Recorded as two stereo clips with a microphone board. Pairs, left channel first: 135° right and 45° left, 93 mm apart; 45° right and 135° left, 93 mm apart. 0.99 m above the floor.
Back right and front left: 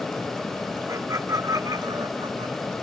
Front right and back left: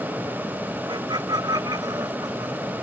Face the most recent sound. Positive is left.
turn(degrees=80)